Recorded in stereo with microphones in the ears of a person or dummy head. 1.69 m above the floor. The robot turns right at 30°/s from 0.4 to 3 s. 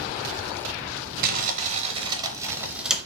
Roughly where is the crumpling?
Ahead right.